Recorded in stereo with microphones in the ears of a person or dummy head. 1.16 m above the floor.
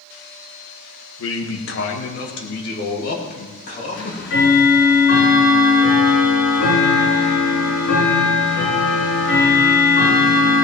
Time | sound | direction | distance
1.2 | a man speaking | 65° left (ahead or behind) | 1.4 m
3.9 | ticking | 75° left (ahead or behind) | 4.5 m